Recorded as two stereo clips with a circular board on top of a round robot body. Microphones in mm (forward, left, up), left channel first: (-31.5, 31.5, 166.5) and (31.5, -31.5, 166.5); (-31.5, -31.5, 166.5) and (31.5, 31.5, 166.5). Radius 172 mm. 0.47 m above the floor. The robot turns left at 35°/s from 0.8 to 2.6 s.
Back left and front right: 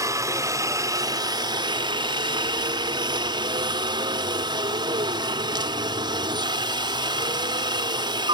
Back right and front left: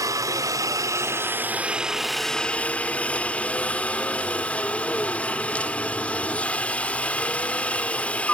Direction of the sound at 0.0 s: Straight ahead.